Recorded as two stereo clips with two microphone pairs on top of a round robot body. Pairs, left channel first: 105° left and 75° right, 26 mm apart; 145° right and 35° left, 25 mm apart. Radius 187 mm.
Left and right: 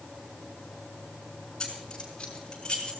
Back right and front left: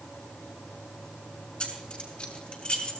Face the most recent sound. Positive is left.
turn(degrees=175)